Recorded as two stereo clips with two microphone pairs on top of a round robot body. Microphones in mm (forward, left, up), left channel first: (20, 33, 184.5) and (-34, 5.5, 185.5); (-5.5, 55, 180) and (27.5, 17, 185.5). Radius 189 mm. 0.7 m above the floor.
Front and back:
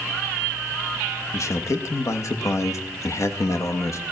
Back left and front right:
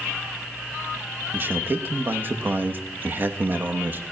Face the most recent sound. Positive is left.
turn(degrees=0)